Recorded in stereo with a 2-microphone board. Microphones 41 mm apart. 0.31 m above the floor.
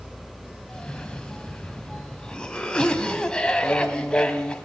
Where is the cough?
20° left (ahead or behind), 2.5 m.